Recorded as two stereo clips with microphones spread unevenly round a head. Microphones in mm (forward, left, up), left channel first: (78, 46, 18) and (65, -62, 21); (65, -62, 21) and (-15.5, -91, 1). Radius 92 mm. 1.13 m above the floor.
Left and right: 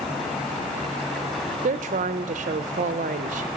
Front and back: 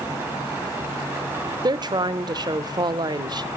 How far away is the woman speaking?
About 0.5 m.